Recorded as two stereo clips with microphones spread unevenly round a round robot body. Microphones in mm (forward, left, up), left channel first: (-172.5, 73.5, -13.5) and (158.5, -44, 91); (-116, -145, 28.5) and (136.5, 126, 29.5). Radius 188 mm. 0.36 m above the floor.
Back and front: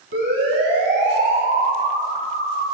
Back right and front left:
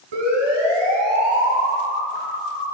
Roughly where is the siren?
Ahead left.